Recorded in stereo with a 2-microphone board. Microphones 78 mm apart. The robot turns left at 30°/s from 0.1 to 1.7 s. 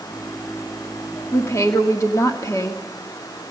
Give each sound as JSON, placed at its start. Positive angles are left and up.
{"t": 1.3, "sound": "a woman speaking", "side_deg": 30, "distance_m": 1.3}